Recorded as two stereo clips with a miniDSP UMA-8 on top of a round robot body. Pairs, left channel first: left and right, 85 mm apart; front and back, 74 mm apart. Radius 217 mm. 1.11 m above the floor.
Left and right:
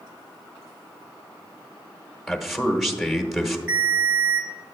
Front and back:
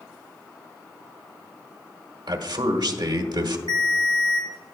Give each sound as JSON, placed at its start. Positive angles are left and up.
{"t": 2.3, "sound": "a man speaking", "azimuth_deg": 180, "distance_m": 1.2}
{"t": 3.7, "sound": "a ringtone", "azimuth_deg": -160, "distance_m": 1.0}